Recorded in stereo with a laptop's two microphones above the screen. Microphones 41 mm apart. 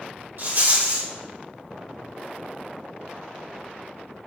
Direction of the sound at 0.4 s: 65° right (ahead or behind).